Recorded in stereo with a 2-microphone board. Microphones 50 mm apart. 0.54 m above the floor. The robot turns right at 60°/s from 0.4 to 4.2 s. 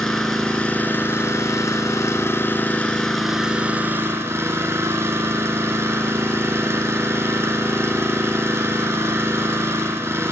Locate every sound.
0.0 s an engine running: 10° left, 2.5 m; by 10.3 s 125° right, 2.5 m